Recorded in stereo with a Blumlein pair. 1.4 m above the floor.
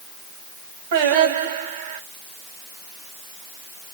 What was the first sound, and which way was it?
Singing, 55° right.